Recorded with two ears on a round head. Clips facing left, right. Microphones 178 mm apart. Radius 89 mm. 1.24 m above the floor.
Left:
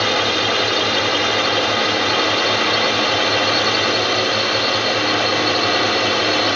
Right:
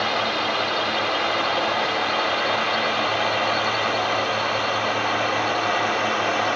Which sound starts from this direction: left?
A drone, at 0.0 s.